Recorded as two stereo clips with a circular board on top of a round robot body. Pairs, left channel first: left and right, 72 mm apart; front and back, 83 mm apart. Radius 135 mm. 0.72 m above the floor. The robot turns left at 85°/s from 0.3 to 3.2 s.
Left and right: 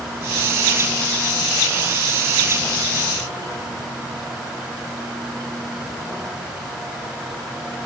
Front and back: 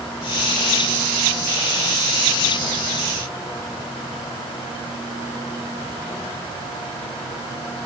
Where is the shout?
No shout in this recording.